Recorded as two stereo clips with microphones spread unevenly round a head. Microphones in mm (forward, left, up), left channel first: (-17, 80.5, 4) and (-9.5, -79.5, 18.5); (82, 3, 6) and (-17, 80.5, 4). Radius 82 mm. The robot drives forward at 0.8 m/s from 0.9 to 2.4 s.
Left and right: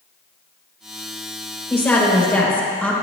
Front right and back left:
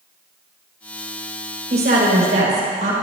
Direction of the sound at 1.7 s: 175° left.